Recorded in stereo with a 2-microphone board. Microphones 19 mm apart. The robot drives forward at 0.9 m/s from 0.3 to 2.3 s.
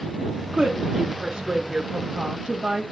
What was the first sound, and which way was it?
A woman speaking, 50° right (ahead or behind).